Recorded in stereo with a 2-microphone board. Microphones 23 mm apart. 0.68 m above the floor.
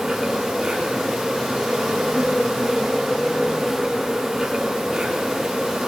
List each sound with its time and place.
0.0 s an insect: 15° right (ahead or behind), 4 m